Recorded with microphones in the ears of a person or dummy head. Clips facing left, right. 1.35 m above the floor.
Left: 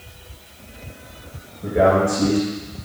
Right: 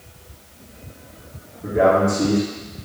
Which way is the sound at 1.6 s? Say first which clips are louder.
Even; 50° left (ahead or behind).